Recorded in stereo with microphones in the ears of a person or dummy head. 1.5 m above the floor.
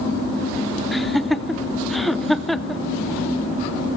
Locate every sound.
0.9 s laughter: 5° left (ahead or behind), 0.6 m